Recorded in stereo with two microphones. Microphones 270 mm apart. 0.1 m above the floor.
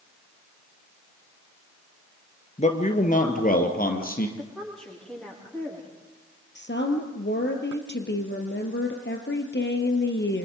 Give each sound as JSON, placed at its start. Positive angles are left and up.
{"t": 2.6, "sound": "a man speaking", "side_deg": 25, "distance_m": 1.8}
{"t": 4.4, "sound": "a woman speaking", "side_deg": 5, "distance_m": 9.0}
{"t": 6.5, "sound": "a woman speaking", "side_deg": 45, "distance_m": 2.5}